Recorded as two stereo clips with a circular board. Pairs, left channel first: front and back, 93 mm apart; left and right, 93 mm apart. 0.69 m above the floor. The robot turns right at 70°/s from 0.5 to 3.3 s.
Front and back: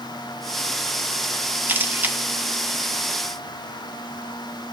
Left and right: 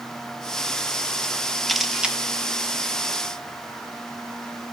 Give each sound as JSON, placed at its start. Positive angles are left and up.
{"t": 1.7, "sound": "a camera shutter", "azimuth_deg": 175, "distance_m": 0.8}